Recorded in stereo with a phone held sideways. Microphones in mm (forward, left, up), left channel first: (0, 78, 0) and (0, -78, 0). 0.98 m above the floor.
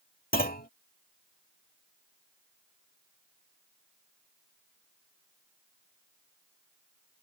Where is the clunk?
70° left (ahead or behind).